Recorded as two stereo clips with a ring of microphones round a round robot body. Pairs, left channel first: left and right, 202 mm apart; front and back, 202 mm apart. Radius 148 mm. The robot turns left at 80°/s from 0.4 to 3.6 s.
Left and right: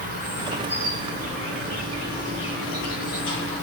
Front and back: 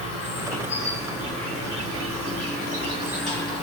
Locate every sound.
0.0 s an insect: 40° right, 2 m; by 3.6 s 60° left, 2 m